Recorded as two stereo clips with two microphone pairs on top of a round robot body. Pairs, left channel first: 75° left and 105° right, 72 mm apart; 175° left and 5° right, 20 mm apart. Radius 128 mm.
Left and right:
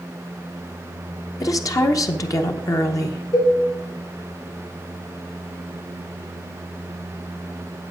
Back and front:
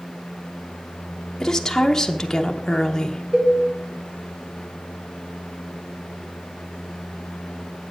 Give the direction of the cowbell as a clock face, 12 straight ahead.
10 o'clock.